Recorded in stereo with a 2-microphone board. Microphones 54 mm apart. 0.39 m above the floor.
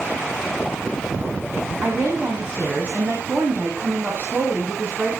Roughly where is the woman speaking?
Right.